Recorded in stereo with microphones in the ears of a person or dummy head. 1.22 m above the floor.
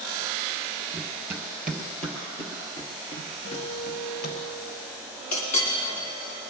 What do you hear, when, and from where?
0.9 s running footsteps: 15° right (ahead or behind), 1.7 m; by 4.4 s 45° left (ahead or behind), 1.9 m
3.4 s a guitar: 80° left, 5 m
5.3 s a clink: 45° left (ahead or behind), 2.5 m